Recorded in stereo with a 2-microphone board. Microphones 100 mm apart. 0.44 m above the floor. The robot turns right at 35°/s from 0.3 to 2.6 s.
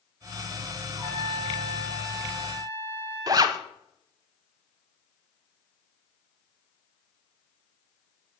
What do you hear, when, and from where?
0.9 s a trumpet: 55° right, 5.5 m; by 3.6 s straight ahead, 5.5 m
3.3 s a zipper: 40° right (ahead or behind), 0.8 m